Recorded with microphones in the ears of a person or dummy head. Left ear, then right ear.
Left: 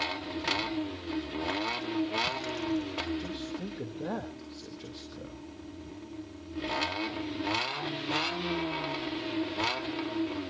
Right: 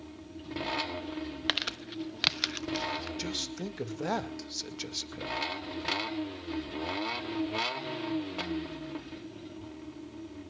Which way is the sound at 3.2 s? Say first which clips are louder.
Right 3 dB; 70° right (ahead or behind).